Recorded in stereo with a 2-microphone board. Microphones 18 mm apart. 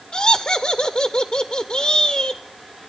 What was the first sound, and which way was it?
Laughter, 65° left (ahead or behind).